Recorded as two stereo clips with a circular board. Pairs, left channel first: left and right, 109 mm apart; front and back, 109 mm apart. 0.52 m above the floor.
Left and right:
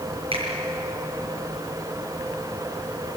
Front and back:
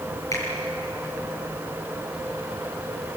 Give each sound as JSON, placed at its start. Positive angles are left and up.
{"t": 0.3, "sound": "a finger snap", "azimuth_deg": -60, "distance_m": 7.0}